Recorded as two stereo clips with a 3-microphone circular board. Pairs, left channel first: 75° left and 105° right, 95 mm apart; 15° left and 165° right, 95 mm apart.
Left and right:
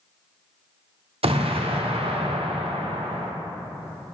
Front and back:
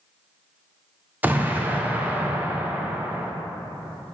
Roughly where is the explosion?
Right.